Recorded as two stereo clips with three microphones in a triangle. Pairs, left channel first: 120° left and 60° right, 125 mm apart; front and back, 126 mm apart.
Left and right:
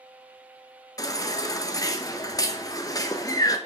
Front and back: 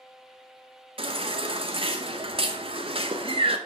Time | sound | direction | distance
1.0 | a baby crying | 170° left | 0.7 m